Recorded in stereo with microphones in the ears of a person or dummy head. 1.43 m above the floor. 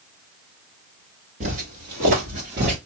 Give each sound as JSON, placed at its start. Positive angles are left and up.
{"t": 1.4, "sound": "footsteps", "side_deg": -35, "distance_m": 1.8}